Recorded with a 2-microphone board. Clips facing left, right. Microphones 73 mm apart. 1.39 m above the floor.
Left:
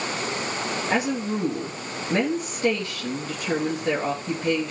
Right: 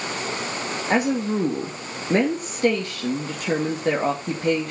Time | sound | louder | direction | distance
0.9 | a woman speaking | right 5 dB | 50° right (ahead or behind) | 2.5 m